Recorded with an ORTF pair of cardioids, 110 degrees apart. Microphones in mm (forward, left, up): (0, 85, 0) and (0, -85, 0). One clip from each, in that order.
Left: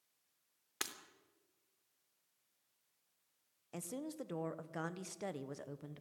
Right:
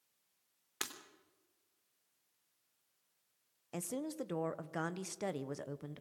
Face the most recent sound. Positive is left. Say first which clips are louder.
# right 4 dB
turn(degrees=-15)